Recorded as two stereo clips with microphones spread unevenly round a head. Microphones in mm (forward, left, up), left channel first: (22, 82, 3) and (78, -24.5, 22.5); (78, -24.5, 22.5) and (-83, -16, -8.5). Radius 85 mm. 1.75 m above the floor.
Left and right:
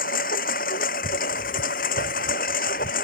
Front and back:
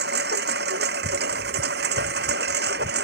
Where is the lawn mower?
140° left.